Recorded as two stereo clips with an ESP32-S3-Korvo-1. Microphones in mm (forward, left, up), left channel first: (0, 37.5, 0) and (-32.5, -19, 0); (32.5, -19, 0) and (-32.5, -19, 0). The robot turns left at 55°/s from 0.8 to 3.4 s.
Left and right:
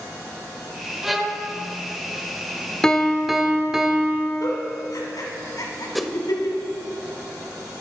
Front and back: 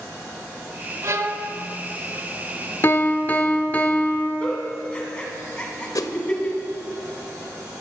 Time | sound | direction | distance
1.0 | a violin | 155° left | 0.9 m
2.8 | a piano | 15° right | 0.6 m
4.4 | a giggle | 70° left | 1.6 m
6.0 | a whoosh | 30° right | 0.5 m